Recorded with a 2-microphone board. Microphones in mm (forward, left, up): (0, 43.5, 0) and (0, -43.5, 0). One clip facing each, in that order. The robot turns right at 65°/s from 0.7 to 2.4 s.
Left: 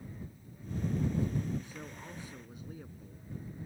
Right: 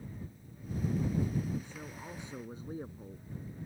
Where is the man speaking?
160° left; by 3.6 s 150° right.